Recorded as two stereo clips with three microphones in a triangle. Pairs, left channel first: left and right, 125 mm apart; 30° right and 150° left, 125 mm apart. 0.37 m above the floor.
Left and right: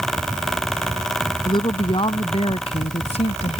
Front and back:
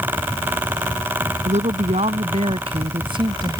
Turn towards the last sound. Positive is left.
turn(degrees=95)